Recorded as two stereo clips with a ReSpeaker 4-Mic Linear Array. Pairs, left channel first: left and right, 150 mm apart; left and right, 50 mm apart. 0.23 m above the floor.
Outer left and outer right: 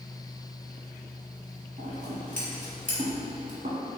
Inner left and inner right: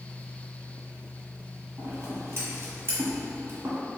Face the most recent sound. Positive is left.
turn(degrees=-55)  # may be behind; listen again after turning